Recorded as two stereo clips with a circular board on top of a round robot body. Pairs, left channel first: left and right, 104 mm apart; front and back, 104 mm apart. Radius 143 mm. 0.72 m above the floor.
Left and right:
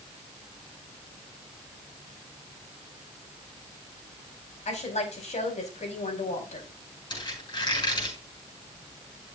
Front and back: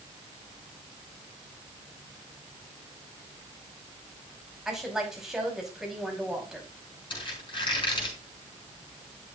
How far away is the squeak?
About 5 m.